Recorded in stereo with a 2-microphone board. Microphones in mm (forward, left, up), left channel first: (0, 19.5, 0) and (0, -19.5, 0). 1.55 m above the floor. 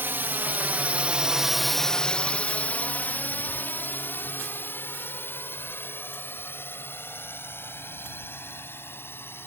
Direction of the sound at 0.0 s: 65° right (ahead or behind).